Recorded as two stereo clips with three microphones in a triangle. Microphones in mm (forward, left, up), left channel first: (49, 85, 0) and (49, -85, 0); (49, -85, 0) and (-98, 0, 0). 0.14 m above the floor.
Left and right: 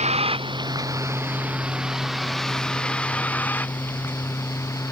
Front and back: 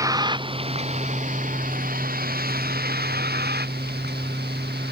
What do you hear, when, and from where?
0.0 s a vehicle: 140° right; by 4.9 s 165° left